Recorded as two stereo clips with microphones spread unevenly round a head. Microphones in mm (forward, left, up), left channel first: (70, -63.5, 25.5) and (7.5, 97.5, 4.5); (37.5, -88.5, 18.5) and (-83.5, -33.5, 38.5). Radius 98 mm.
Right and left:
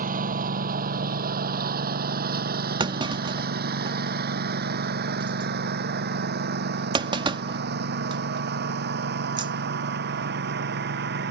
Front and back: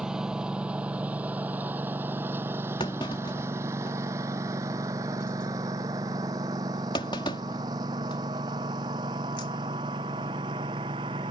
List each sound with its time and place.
0.0 s a lawn mower: 70° left; by 11.3 s 85° left
2.8 s a clunk: 45° left